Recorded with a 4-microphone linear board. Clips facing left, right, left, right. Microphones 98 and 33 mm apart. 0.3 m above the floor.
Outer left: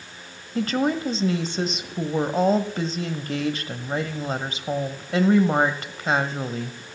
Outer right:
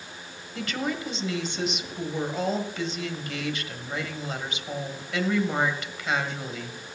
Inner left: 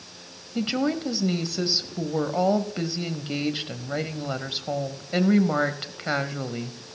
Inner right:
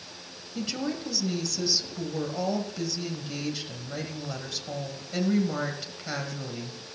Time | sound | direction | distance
0.6 | a woman speaking | 40° left (ahead or behind) | 1.2 m